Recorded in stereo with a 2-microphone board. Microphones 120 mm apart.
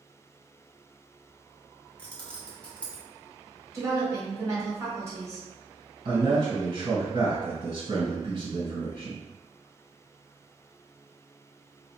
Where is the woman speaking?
25° right (ahead or behind), 1.5 m.